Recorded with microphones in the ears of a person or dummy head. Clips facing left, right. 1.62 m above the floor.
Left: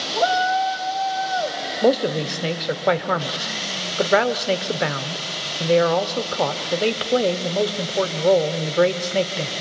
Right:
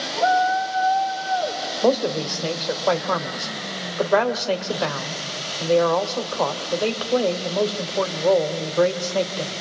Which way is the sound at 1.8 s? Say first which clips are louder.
Left 1 dB; 20° left (ahead or behind).